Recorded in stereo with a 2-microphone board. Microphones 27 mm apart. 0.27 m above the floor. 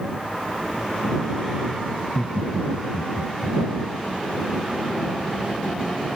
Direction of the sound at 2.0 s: 30° left (ahead or behind).